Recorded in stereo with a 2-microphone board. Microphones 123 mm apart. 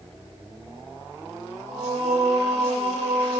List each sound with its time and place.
1.7 s singing: 70° right (ahead or behind), 0.5 m